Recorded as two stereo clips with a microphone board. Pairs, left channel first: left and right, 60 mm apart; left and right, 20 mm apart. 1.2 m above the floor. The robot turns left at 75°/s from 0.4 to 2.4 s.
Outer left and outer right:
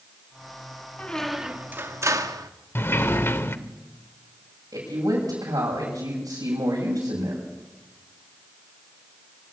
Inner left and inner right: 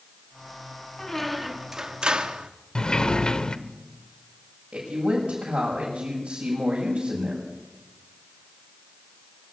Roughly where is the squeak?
Ahead left.